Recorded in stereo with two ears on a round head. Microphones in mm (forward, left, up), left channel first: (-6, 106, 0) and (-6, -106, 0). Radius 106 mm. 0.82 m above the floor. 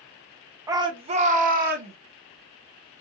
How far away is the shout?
About 0.7 m.